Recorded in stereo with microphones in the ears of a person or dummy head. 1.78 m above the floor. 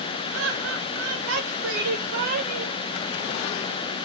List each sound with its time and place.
0.3 s laughter: 75° right (ahead or behind), 3 m; by 2.8 s 35° right (ahead or behind), 1.8 m